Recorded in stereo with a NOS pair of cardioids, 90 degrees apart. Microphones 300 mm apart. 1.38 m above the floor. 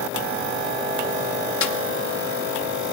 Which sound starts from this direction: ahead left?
A snare drum, at 1.6 s.